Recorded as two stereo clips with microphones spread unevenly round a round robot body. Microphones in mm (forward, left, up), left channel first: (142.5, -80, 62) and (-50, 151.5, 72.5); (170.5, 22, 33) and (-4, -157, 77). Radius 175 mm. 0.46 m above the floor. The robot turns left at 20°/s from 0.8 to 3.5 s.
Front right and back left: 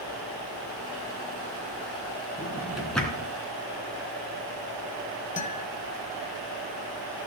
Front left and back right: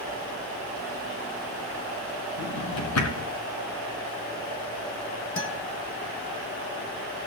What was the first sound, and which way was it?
A drawer, 50° left.